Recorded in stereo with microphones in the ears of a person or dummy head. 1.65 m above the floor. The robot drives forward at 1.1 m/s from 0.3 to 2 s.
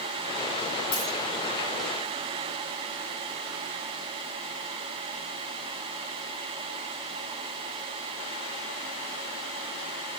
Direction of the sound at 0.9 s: 60° left (ahead or behind).